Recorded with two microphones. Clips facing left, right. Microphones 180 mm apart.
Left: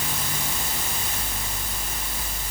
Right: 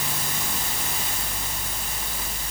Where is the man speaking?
I don't hear a man speaking.